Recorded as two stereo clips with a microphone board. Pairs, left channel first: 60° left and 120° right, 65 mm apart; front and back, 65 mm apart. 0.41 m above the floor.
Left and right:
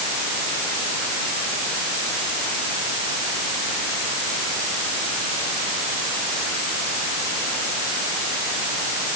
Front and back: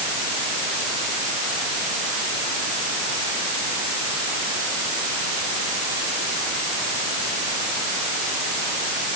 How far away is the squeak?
I don't hear a squeak.